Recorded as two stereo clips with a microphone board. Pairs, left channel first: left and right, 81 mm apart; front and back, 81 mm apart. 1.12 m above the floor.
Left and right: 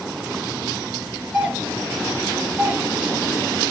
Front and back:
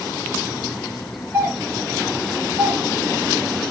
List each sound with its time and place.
1.3 s a doorbell: 170° right, 1.3 m